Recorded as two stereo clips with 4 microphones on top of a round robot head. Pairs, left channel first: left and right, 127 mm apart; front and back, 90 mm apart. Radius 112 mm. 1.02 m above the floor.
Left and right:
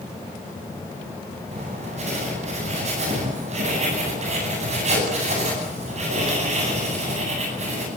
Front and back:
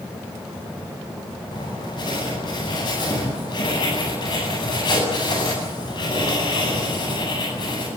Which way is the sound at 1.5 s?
50° right.